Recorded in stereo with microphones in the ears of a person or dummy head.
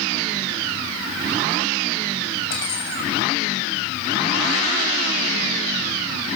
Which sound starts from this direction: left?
Cutlery clinking, at 2.5 s.